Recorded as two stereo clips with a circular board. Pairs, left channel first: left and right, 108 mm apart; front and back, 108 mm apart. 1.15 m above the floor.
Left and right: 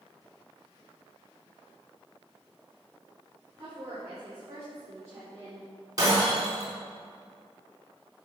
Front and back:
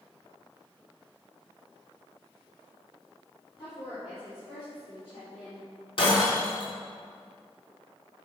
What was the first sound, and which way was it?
A woman speaking, 35° right.